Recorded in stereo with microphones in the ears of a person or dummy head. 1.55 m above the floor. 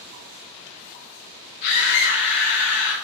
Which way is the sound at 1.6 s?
50° left (ahead or behind).